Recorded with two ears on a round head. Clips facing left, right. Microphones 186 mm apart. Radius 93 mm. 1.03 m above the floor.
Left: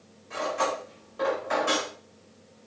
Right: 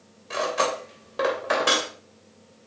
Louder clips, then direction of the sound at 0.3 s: Right 3 dB; 85° right.